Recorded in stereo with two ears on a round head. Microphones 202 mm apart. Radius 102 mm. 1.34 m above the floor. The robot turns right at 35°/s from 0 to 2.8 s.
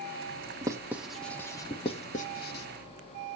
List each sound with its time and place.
0.6 s writing: 15° right (ahead or behind), 1.1 m; by 2.6 s 50° left (ahead or behind), 1.1 m